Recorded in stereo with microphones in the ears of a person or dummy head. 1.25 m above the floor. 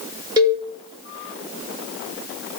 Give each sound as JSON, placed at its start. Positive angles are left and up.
{"t": 0.4, "sound": "a cowbell", "side_deg": -20, "distance_m": 1.3}